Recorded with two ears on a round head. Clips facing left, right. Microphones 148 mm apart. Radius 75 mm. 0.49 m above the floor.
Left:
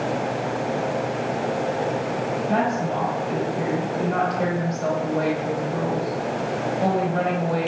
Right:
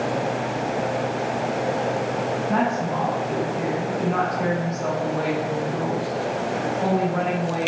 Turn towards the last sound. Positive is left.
turn(degrees=40)  # may be behind; listen again after turning